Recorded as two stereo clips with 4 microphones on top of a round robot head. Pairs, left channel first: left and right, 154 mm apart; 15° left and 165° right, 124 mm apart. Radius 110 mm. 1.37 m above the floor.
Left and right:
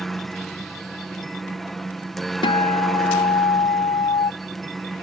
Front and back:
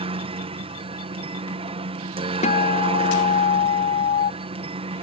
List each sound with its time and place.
0.0 s a helicopter: straight behind
2.4 s a guitar: 35° left